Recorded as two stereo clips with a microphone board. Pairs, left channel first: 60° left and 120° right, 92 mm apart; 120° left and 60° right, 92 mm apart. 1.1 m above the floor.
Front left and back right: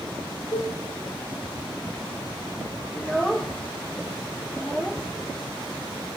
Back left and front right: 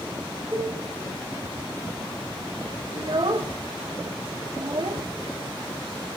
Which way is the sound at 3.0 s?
25° right.